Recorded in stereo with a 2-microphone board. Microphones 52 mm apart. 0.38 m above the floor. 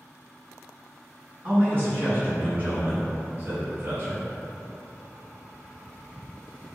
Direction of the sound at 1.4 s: 35° right (ahead or behind).